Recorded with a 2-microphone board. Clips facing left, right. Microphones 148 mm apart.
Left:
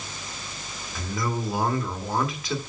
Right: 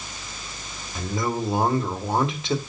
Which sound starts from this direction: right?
A man speaking, at 0.9 s.